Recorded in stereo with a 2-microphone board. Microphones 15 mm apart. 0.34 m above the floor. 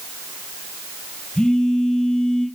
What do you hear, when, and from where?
1.4 s a phone buzzing: 80° left, 2 m